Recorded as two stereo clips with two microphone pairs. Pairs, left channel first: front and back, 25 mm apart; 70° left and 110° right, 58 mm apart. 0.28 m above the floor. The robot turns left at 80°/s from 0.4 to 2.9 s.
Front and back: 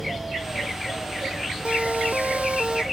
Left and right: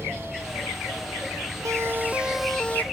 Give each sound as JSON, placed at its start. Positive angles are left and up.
{"t": 1.6, "sound": "a siren", "azimuth_deg": -140}